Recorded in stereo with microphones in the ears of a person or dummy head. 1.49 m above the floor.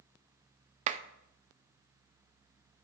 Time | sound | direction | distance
0.9 | a clap | 35° right (ahead or behind) | 0.5 m